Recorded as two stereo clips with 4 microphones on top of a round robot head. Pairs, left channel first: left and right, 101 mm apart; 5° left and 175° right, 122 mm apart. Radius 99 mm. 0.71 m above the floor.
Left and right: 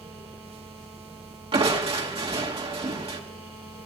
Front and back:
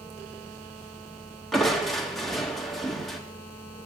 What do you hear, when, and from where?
1.5 s crushing: 85° right, 2 m